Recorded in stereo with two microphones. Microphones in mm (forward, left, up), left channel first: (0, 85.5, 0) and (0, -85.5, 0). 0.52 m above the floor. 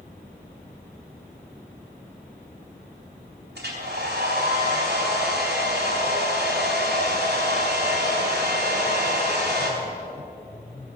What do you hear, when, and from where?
3.5 s a hair dryer: 70° right (ahead or behind), 4 m